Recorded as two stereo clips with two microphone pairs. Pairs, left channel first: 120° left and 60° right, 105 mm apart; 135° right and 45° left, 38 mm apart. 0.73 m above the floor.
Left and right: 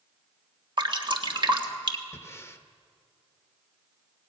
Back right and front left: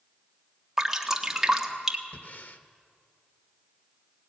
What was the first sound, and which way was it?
Dripping, 35° right.